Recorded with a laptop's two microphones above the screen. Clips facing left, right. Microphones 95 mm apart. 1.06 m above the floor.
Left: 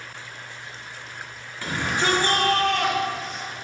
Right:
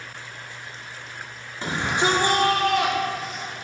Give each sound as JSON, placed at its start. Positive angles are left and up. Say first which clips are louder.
{"t": 1.6, "sound": "a shout", "louder": "right 2 dB", "side_deg": -25, "distance_m": 3.0}